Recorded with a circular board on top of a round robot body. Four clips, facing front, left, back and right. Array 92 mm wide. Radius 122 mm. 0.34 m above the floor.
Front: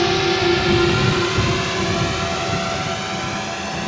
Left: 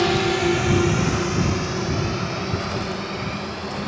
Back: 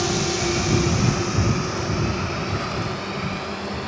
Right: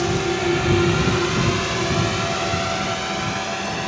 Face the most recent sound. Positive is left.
turn(degrees=-50)